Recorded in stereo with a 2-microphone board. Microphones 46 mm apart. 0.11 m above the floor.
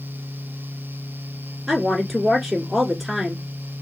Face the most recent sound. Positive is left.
turn(degrees=0)  # may be behind; listen again after turning